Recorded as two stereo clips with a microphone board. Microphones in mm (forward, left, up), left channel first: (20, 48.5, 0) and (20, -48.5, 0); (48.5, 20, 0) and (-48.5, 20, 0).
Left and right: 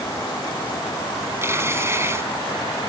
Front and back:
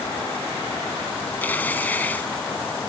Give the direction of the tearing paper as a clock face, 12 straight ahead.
2 o'clock.